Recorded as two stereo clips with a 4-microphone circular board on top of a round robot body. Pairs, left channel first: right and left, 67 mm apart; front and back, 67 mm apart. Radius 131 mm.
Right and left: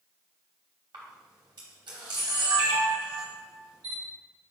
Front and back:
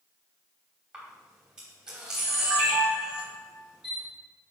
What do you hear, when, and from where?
0.9 s a camera shutter: 100° left, 0.8 m